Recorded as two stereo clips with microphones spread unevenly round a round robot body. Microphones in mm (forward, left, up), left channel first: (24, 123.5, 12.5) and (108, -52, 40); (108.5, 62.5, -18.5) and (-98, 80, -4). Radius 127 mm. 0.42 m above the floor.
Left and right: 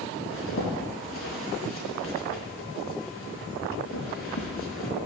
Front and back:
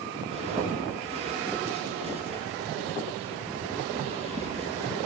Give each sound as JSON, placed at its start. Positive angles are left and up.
{"t": 0.3, "sound": "a zipper", "azimuth_deg": 115, "distance_m": 3.0}